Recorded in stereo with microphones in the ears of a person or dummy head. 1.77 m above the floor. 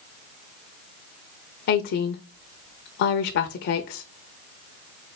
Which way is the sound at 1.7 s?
60° left (ahead or behind).